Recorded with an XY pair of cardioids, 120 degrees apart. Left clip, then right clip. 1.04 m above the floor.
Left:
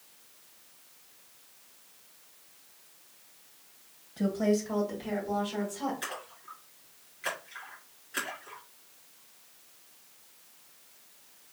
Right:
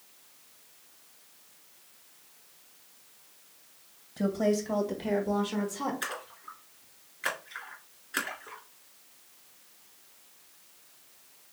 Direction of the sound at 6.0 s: 40° right.